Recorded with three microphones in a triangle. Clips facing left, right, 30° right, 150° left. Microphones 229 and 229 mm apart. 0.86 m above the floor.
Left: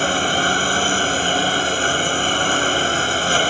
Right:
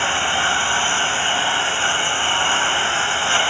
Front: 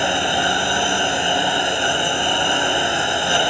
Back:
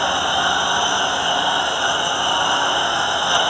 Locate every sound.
0.0 s a lawn mower: 40° left